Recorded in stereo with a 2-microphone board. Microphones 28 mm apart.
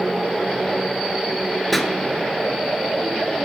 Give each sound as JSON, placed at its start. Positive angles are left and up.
{"t": 1.7, "sound": "a pop", "side_deg": 5, "distance_m": 0.5}